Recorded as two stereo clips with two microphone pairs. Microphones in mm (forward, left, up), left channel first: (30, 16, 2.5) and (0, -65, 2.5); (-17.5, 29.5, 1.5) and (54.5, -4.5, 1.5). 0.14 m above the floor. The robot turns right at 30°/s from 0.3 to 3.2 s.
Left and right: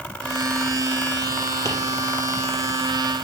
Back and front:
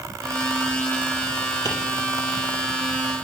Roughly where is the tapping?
Behind left.